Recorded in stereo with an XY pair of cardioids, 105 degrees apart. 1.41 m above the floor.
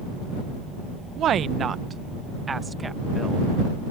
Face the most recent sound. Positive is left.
turn(degrees=-15)